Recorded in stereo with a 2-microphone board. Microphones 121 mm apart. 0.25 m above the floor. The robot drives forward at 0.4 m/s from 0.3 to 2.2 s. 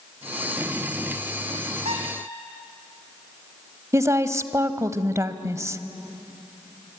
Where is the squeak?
60° right (ahead or behind), 3.5 m.